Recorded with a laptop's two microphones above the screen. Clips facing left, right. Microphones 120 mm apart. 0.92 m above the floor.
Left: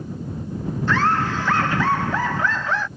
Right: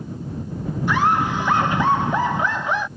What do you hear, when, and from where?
0.9 s laughter: 15° right (ahead or behind)